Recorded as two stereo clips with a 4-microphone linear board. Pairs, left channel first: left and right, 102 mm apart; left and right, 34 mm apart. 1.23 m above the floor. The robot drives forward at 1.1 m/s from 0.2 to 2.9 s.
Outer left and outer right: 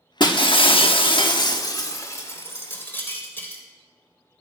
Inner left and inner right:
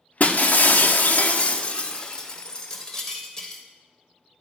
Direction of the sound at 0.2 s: 45° left (ahead or behind).